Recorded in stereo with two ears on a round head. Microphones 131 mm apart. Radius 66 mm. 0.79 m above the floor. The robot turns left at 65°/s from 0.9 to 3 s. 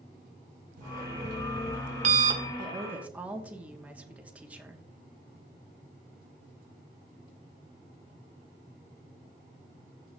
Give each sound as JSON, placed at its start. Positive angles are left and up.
{"t": 0.8, "sound": "an alarm clock", "azimuth_deg": -55, "distance_m": 1.5}
{"t": 2.6, "sound": "a woman speaking", "side_deg": -35, "distance_m": 1.3}